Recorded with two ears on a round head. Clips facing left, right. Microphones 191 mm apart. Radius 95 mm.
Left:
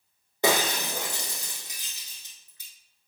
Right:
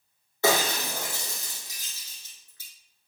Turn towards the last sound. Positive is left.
turn(degrees=15)  # may be behind; listen again after turning